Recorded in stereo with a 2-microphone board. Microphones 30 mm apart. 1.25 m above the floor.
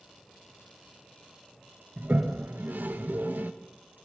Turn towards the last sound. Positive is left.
turn(degrees=-75)  # may be behind; listen again after turning